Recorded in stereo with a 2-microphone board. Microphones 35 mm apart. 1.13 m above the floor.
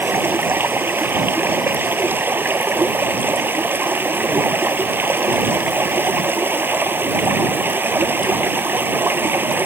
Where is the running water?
85° right.